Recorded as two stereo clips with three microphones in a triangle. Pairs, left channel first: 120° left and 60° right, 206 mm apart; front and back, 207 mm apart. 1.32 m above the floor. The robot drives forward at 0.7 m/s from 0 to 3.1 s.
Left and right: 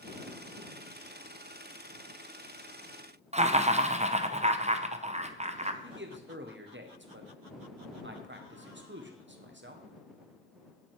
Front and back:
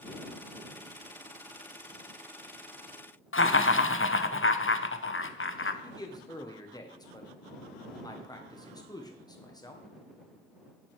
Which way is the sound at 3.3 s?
5° right.